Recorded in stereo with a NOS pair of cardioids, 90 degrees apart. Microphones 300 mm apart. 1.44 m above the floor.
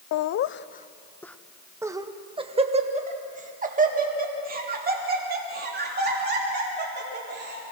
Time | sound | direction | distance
0.1 | laughter | 70° left | 0.6 m